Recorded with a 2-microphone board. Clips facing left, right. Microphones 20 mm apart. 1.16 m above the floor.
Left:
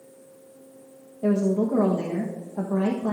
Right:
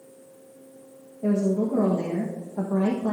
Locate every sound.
1.2 s a woman speaking: 70° left (ahead or behind), 1.3 m